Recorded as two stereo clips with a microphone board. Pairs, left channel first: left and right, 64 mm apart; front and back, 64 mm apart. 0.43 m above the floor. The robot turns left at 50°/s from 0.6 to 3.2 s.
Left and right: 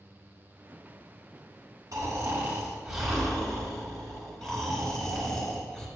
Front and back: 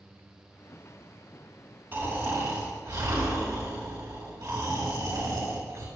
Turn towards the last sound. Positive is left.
turn(degrees=170)